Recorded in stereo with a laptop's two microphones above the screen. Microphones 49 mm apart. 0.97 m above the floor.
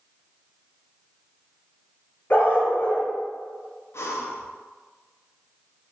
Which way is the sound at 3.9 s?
70° left (ahead or behind).